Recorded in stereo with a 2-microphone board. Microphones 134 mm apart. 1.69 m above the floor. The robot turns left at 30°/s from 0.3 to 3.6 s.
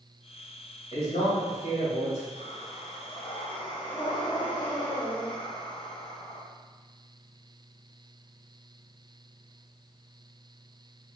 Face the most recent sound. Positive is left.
turn(degrees=40)